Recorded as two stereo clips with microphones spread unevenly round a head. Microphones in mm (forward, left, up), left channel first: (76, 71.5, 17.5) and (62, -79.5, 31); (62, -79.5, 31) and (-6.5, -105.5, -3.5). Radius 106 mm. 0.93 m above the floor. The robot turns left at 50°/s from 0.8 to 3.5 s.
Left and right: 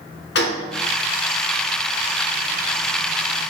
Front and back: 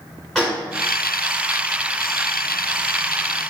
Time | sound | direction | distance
0.3 | a gunshot | 95° left | 0.9 m